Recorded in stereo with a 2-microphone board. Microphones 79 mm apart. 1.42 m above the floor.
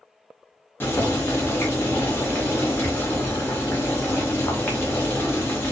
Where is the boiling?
25° left (ahead or behind), 0.9 m.